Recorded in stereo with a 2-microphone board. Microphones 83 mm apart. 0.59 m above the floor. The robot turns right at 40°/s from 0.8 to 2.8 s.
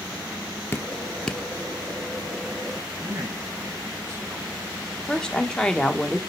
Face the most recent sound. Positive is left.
turn(degrees=10)  # may be behind; listen again after turning